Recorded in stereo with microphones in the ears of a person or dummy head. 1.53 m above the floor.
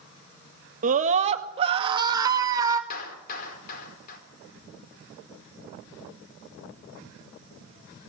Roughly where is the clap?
Left.